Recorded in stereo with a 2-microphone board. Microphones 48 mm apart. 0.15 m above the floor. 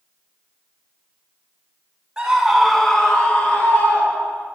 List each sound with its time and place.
2.2 s a scream: 15° right (ahead or behind), 1.3 m; by 4.5 s 30° left (ahead or behind), 3 m